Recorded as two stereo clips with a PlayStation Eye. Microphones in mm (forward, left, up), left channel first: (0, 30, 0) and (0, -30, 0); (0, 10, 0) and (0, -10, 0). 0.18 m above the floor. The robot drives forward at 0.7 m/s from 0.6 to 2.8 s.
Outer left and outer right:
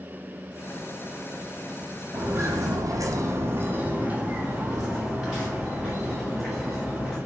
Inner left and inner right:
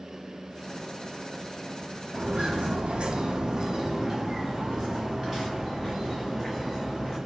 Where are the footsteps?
40° right (ahead or behind), 0.9 m; by 7.2 s centre (ahead or behind), 2 m.